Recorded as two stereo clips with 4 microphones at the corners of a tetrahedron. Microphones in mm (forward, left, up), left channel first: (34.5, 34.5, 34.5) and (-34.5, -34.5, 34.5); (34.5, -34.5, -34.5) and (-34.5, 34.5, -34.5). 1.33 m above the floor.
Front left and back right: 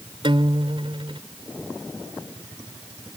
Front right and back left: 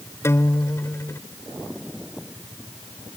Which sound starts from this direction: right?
A guitar, at 0.2 s.